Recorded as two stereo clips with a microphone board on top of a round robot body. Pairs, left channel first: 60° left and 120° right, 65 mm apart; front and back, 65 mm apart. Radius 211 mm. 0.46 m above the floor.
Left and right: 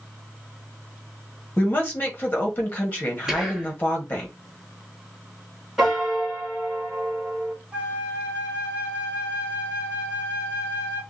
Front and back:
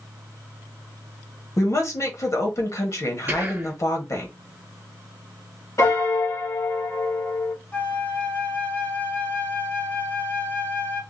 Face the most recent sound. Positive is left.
turn(degrees=-55)